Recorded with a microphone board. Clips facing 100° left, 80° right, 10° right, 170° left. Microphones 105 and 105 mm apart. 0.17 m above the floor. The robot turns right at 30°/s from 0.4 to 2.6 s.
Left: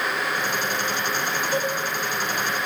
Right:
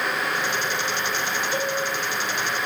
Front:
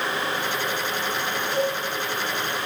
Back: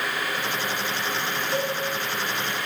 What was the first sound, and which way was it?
A cowbell, 75° left.